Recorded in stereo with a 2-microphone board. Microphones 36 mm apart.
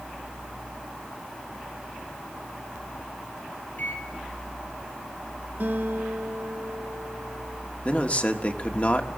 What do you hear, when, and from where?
3.8 s a microwave: 55° left (ahead or behind), 4 m
5.6 s a guitar: 60° right (ahead or behind), 3 m
7.8 s a man speaking: 40° left (ahead or behind), 1.5 m